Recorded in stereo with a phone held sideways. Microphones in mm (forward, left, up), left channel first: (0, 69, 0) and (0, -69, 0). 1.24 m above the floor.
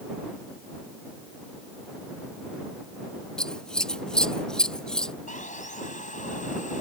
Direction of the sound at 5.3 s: 65° left (ahead or behind).